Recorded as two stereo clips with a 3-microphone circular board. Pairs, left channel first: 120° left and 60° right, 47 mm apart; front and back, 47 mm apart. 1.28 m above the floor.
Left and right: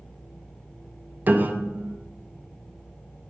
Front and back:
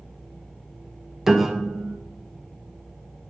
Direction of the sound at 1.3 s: 100° right.